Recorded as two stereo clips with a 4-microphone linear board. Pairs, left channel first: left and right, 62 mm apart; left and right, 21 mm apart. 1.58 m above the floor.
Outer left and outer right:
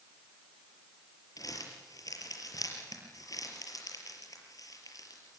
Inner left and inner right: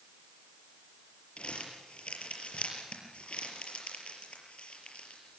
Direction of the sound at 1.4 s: 65° left (ahead or behind).